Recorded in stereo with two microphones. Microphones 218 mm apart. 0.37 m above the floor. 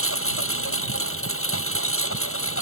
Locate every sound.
0.0 s a lawn mower: 80° left